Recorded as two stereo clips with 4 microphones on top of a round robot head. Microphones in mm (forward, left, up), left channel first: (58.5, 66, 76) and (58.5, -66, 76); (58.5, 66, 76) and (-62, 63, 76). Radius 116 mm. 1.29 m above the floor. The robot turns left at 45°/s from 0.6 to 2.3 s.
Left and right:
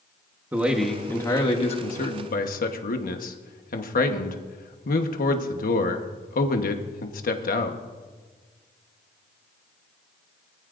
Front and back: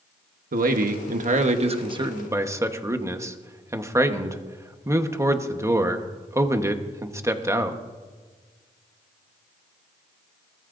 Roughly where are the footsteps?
No footsteps in this recording.